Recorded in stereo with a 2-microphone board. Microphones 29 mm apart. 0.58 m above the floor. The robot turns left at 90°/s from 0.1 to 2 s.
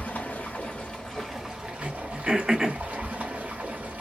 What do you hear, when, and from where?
0.0 s running water: 115° left, 1.1 m; by 4.0 s 60° right, 1.1 m
1.8 s throat clearing: 35° right (ahead or behind), 0.6 m; by 2.8 s 20° right (ahead or behind), 0.6 m